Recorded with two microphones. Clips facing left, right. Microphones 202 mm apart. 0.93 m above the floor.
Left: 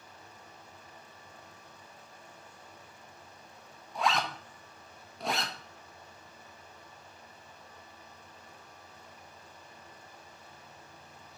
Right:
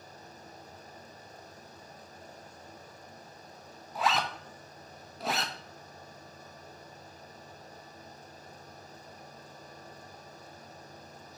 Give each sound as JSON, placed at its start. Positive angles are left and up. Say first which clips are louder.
{"t": 4.0, "sound": "a zipper", "louder": "even", "side_deg": 0, "distance_m": 1.0}